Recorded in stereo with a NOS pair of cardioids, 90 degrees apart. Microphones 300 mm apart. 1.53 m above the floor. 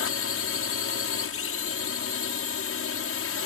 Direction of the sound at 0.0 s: 50° left.